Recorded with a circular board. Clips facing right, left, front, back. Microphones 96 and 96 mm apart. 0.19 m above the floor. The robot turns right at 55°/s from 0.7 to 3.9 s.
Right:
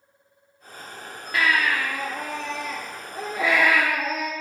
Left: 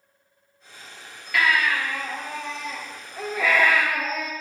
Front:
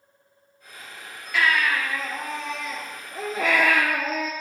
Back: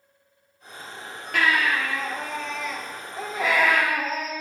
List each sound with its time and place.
1.3 s a baby crying: 145° right, 3 m; by 4.3 s straight ahead, 3 m